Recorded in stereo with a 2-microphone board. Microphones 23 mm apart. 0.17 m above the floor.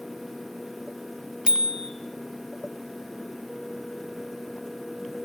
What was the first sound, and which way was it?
A bicycle bell, 30° right (ahead or behind).